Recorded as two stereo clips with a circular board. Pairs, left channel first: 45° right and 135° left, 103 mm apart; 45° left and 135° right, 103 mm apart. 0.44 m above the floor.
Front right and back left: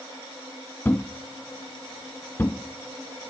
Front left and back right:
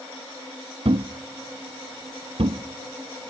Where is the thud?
115° right, 0.7 m.